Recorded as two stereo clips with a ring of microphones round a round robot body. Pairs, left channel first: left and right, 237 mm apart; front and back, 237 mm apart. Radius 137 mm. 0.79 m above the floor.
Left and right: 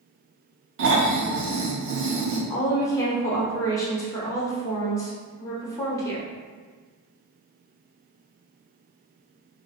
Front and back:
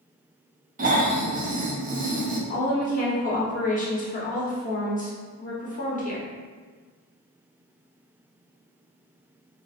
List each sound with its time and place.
0.8 s snoring: 125° right, 0.8 m
2.5 s a woman speaking: 20° left, 0.8 m